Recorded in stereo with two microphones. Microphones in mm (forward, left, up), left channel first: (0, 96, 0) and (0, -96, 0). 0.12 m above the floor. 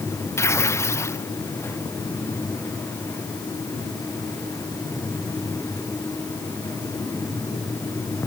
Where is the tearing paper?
15° left (ahead or behind).